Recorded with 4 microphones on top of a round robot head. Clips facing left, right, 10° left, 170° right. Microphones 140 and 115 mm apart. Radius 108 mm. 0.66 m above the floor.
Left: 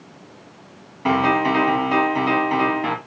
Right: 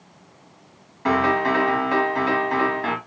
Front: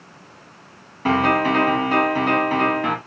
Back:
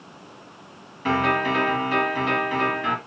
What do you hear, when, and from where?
1.1 s a piano: 25° left, 0.9 m